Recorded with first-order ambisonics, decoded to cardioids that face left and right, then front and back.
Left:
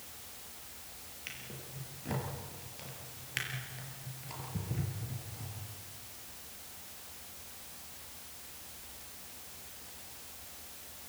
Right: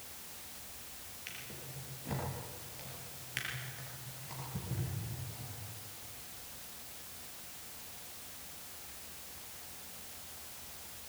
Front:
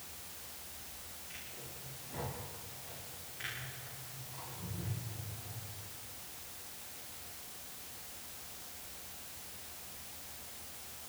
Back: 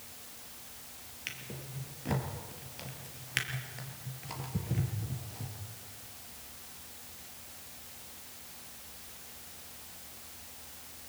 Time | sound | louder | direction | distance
1.3 | a drawer | left 2 dB, back 8 dB | 170° left | 4.5 m